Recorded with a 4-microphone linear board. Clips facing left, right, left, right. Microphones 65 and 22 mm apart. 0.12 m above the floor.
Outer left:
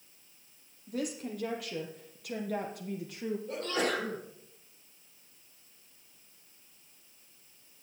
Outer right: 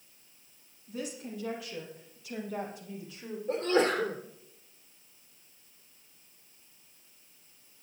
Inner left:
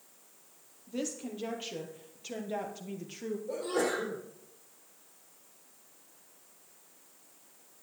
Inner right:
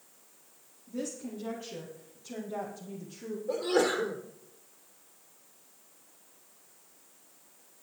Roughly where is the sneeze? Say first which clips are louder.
Outer right 7 dB, inner right 5 dB; right.